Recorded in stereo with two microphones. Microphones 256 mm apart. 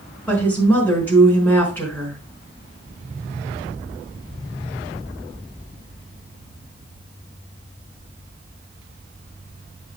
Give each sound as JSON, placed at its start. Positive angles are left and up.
{"t": 0.3, "sound": "a woman speaking", "side_deg": 5, "distance_m": 4.5}